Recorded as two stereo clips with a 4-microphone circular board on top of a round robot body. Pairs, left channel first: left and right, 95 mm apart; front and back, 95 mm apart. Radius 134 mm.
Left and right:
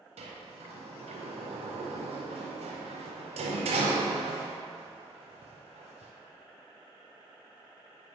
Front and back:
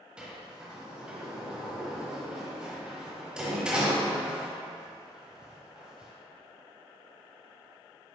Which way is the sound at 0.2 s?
100° right.